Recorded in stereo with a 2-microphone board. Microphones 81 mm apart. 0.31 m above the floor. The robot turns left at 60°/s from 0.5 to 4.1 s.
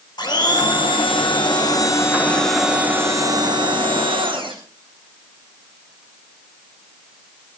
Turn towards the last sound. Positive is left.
turn(degrees=-95)